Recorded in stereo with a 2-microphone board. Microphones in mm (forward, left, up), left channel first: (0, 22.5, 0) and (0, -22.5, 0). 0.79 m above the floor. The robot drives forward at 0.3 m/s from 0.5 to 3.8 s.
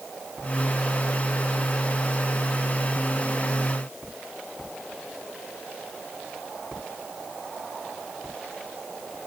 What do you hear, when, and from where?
Only background noise.